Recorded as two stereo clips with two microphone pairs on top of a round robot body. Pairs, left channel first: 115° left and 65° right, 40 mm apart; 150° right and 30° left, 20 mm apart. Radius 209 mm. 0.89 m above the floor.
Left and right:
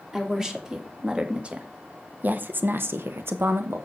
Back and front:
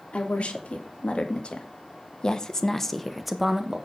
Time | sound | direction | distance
0.1 | a woman speaking | 140° right | 3 m